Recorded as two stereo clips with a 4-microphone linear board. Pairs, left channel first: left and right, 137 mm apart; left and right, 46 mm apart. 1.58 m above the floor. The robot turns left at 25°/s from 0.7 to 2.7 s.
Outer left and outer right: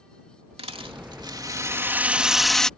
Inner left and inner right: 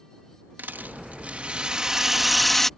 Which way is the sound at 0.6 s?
135° right.